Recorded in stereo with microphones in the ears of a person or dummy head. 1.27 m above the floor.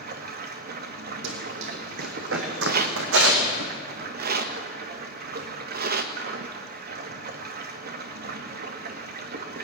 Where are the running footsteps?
70° right (ahead or behind), 3.5 m.